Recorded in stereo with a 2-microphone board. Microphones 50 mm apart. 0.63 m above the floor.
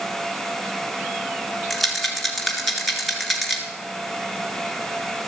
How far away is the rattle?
About 1.8 m.